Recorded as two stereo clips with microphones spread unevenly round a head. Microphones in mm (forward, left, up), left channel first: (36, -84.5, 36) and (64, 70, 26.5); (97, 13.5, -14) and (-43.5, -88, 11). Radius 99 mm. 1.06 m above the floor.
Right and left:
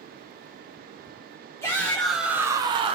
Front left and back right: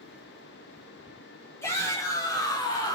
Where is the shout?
30° right, 0.7 m; by 3.0 s 75° left, 0.6 m.